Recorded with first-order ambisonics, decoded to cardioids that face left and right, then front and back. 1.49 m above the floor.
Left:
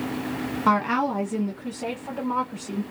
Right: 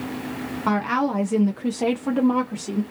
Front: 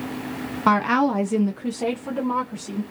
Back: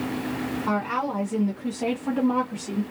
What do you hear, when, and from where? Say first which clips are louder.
0.7 s a woman speaking: left 1 dB, front 8 dB; 10° left, 0.6 m; by 2.8 s 100° right, 1.1 m